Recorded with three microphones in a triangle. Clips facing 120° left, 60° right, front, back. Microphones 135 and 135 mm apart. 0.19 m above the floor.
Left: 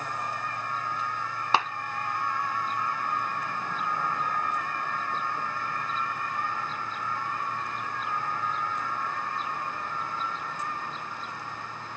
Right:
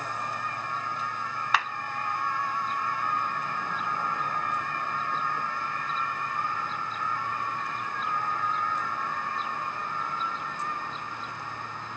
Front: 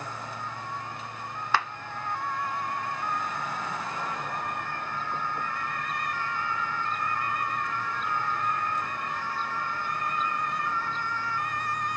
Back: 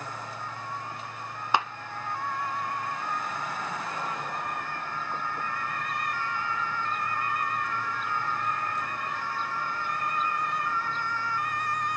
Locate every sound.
1.5 s a clap: 130° left, 0.9 m